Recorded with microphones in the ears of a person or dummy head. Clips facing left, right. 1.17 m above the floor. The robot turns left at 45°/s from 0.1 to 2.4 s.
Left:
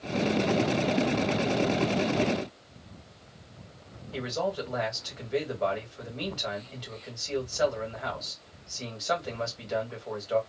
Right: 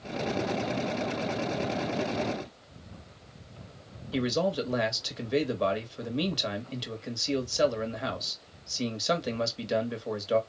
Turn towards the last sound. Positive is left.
turn(degrees=-50)  # may be behind; listen again after turning